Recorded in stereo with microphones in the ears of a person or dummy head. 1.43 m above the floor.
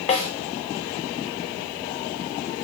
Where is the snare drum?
40° left (ahead or behind), 1.4 m.